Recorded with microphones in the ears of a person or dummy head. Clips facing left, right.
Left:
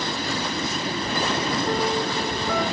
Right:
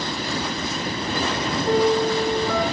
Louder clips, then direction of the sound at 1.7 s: Right 10 dB; 85° right.